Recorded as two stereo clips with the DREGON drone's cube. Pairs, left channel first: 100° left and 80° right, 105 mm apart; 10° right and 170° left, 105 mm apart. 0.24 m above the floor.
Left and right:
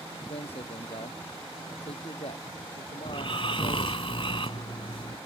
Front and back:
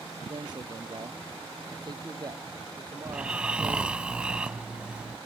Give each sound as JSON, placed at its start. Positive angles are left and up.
{"t": 0.3, "sound": "a man speaking", "azimuth_deg": 125}
{"t": 3.0, "sound": "snoring", "azimuth_deg": 90}